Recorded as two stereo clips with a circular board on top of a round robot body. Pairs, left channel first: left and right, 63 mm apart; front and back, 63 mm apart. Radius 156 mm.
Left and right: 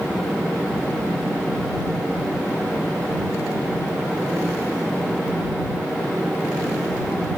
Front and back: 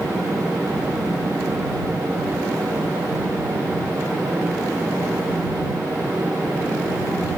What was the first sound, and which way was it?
Only background noise.